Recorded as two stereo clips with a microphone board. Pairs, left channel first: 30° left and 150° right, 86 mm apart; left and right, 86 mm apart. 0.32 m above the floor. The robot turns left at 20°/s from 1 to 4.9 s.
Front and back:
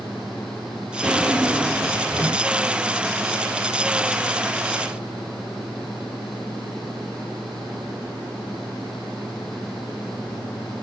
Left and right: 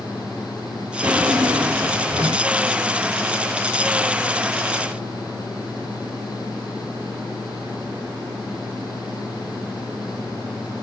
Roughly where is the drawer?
Ahead right.